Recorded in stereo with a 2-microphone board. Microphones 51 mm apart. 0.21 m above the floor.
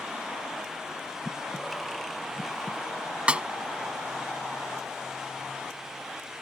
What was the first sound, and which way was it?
Breathing, 5° left (ahead or behind).